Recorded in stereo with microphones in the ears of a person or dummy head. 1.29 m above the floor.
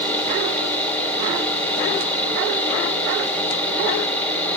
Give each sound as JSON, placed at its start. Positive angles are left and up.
{"t": 0.0, "sound": "a fan", "side_deg": 10, "distance_m": 1.7}